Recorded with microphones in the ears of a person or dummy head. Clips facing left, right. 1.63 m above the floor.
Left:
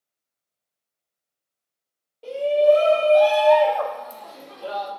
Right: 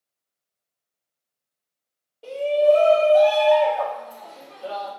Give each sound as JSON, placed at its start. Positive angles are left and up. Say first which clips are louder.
{"t": 2.2, "sound": "a shout", "louder": "left 1 dB", "side_deg": 5, "distance_m": 0.7}